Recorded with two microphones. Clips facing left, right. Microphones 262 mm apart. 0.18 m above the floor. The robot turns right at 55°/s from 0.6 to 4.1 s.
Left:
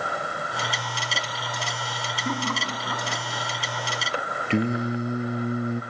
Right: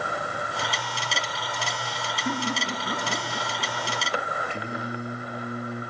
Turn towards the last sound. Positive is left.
turn(degrees=70)  # may be behind; listen again after turning